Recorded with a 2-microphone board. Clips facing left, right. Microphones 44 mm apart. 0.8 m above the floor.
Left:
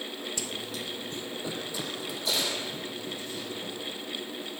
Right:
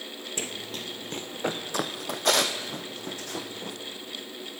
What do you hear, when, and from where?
0.4 s running footsteps: 35° right (ahead or behind), 0.9 m; by 3.8 s 65° right (ahead or behind), 3 m